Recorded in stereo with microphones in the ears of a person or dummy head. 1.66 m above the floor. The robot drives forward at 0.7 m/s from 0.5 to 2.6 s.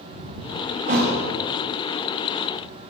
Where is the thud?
40° right (ahead or behind), 1.4 m; by 1.2 s 35° right (ahead or behind), 1.5 m.